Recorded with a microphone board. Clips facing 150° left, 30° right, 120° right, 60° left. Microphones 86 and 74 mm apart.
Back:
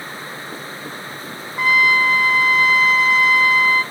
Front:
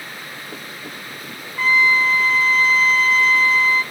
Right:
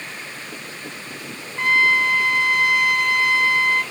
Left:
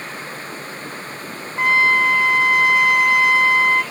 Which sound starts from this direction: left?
A trumpet, at 1.6 s.